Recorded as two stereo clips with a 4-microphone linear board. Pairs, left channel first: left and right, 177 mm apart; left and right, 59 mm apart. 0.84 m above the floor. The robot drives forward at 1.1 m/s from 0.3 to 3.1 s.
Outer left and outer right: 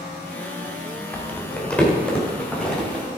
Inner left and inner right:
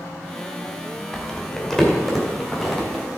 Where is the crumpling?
10° left (ahead or behind), 1.3 m; by 3.0 s 5° left (ahead or behind), 3.5 m.